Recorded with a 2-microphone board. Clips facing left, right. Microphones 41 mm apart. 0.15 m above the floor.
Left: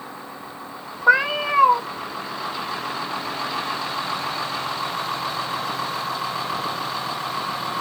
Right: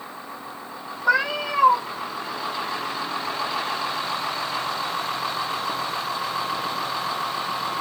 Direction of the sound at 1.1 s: 25° left (ahead or behind).